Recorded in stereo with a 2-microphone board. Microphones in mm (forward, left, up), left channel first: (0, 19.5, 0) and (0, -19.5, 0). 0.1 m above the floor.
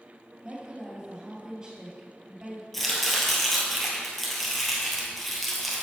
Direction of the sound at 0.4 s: 20° right (ahead or behind).